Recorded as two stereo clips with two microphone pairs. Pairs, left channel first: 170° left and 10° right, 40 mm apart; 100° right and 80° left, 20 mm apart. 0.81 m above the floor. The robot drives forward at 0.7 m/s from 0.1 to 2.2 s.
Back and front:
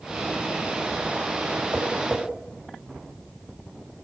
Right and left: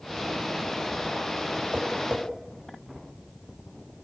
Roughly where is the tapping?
Ahead left.